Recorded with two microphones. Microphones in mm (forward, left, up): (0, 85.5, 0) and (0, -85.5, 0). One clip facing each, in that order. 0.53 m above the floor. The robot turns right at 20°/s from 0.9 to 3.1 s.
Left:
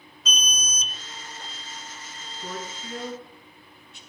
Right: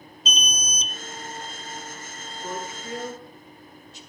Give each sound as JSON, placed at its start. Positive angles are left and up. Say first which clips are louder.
{"t": 0.2, "sound": "an alarm", "louder": "right 2 dB", "side_deg": -25, "distance_m": 0.9}
{"t": 2.4, "sound": "a woman speaking", "louder": "right 2 dB", "side_deg": 45, "distance_m": 6.5}